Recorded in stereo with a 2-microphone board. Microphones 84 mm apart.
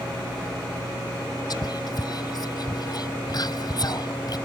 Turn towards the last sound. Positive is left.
turn(degrees=55)  # may be behind; listen again after turning